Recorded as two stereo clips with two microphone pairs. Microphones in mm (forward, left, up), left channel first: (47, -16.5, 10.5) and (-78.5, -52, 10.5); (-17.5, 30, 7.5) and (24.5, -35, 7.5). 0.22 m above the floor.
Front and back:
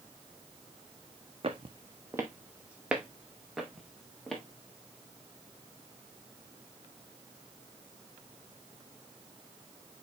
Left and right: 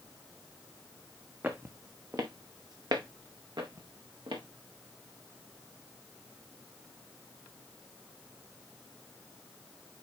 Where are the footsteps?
120° right, 1.1 m; by 4.4 s 70° right, 3 m.